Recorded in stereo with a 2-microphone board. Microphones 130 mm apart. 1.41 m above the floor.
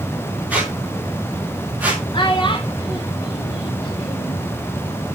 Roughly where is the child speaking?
Left.